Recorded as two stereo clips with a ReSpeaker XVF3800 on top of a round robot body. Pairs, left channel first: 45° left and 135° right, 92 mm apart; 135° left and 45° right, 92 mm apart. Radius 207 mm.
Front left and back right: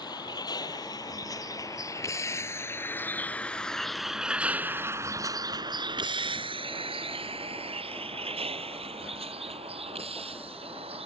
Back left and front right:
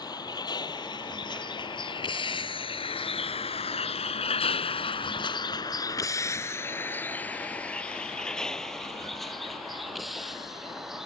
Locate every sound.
0.0 s a vehicle: 90° left; by 11.1 s 130° right